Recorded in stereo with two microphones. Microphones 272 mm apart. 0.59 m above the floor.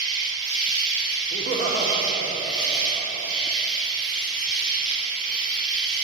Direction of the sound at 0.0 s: 65° left (ahead or behind).